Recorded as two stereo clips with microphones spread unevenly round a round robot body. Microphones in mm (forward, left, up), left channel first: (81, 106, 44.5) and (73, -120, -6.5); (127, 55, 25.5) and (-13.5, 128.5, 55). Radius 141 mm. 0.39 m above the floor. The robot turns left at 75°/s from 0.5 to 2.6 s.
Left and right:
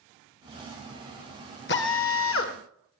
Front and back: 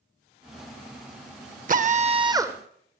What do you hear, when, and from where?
1.7 s a drill: 135° left, 2.0 m; by 2.6 s 70° left, 2.0 m